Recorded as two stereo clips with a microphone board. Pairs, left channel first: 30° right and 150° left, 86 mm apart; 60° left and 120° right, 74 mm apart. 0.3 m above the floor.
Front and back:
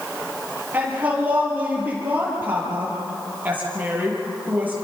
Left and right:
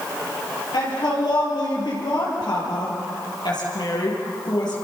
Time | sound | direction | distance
0.7 | a woman speaking | 80° left | 8 m